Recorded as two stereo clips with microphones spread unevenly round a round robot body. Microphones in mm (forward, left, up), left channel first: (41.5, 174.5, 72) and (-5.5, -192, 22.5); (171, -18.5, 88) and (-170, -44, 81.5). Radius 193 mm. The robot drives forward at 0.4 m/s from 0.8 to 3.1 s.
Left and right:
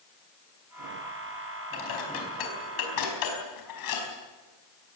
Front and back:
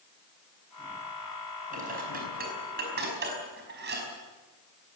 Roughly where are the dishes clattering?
Behind left.